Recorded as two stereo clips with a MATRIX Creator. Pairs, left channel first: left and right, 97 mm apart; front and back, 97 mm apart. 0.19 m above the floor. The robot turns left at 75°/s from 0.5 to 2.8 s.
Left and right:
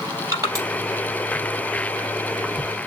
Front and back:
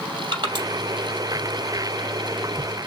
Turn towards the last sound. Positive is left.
turn(degrees=50)